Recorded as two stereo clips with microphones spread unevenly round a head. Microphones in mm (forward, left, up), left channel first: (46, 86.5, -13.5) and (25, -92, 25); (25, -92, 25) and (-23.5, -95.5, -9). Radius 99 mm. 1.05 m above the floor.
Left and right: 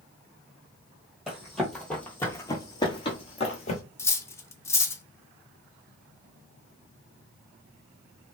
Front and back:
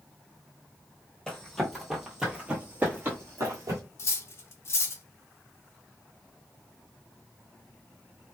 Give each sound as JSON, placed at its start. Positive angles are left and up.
{"t": 1.3, "sound": "running footsteps", "azimuth_deg": -25, "distance_m": 1.3}
{"t": 4.0, "sound": "cutlery clinking", "azimuth_deg": 5, "distance_m": 0.5}